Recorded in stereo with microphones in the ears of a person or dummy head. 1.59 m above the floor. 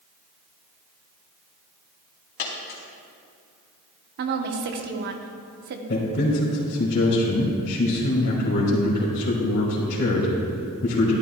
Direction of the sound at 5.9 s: 55° left (ahead or behind).